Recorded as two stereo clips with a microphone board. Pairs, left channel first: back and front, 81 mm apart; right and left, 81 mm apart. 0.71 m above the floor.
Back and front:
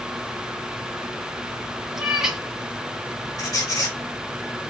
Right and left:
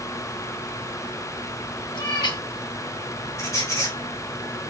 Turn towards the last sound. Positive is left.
turn(degrees=-140)